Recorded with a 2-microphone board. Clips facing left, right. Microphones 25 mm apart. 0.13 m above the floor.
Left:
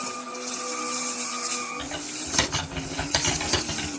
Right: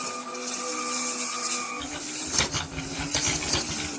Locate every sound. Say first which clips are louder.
1.8 s typing on a keyboard: left 1 dB; 75° left (ahead or behind), 4 m